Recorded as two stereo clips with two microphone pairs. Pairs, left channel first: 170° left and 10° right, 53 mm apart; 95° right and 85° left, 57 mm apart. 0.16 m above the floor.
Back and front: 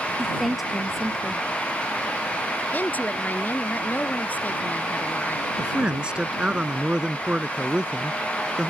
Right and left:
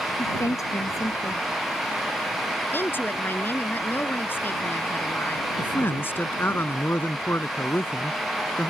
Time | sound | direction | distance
0.2 | a woman speaking | 100° right | ?
2.7 | a woman speaking | 140° right | ?
5.6 | a man speaking | 70° right | ?